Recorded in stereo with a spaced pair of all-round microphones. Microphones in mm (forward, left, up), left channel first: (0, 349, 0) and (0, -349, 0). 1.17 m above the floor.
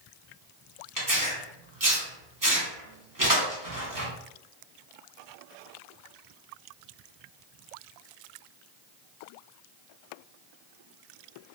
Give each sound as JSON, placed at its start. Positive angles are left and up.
{"t": 1.0, "sound": "tearing paper", "side_deg": -30, "distance_m": 0.9}